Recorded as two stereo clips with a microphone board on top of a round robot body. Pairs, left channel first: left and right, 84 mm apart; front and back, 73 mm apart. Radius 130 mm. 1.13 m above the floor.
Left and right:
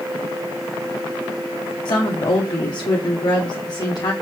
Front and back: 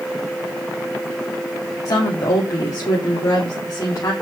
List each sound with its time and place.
1.9 s a woman speaking: 50° left, 2.5 m